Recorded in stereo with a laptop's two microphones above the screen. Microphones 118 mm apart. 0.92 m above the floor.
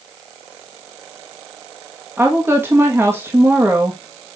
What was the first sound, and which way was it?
A woman speaking, 20° right (ahead or behind).